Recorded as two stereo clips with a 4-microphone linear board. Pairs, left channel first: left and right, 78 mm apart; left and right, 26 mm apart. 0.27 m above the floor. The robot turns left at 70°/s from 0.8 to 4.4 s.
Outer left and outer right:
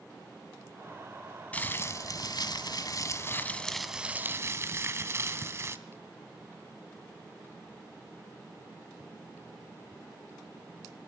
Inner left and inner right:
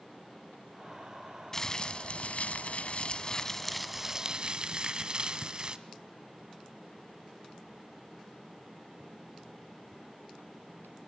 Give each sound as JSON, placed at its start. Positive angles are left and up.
{"t": 1.5, "sound": "crumpling", "azimuth_deg": 160, "distance_m": 1.3}